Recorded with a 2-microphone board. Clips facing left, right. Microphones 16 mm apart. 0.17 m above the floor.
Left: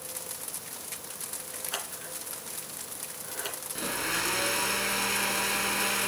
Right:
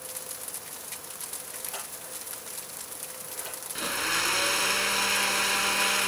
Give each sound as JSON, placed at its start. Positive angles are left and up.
{"t": 1.7, "sound": "scissors", "side_deg": 45, "distance_m": 2.5}
{"t": 3.8, "sound": "a blender", "side_deg": -20, "distance_m": 0.8}